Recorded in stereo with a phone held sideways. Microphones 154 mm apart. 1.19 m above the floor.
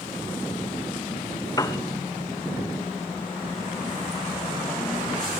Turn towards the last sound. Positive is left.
turn(degrees=25)  # may be behind; listen again after turning